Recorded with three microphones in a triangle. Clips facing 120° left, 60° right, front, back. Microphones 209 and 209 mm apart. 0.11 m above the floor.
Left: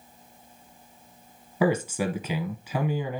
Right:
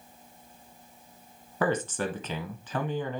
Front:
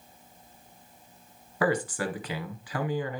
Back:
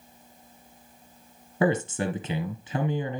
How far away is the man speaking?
About 1.1 m.